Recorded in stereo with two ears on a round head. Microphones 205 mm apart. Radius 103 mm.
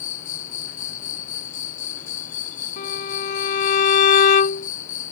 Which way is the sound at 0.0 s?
35° left (ahead or behind).